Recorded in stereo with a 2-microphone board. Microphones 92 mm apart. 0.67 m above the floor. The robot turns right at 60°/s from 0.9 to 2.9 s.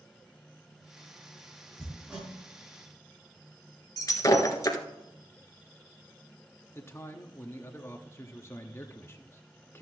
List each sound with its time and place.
1.8 s hammering: 10° left (ahead or behind), 4.5 m; by 2.3 s 20° right (ahead or behind), 4.5 m
4.0 s breaking glass: 40° left (ahead or behind), 1.5 m
6.8 s a man speaking: 25° left (ahead or behind), 1.0 m